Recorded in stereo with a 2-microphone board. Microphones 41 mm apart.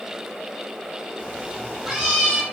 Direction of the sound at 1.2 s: 25° right (ahead or behind).